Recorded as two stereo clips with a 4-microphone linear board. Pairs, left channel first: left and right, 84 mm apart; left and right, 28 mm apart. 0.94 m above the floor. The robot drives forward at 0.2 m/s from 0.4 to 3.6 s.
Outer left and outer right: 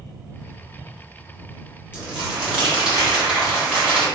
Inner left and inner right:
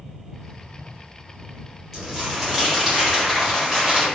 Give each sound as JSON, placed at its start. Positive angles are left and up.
{"t": 1.9, "sound": "crumpling", "side_deg": -10, "distance_m": 1.2}